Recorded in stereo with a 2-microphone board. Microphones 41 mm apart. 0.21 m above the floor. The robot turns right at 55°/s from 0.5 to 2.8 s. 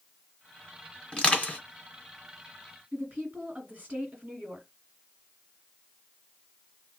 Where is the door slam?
No door slam in this recording.